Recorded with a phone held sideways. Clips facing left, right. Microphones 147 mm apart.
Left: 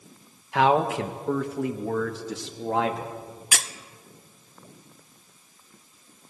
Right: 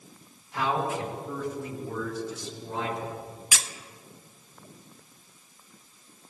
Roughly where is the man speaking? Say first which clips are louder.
Left 7 dB; left.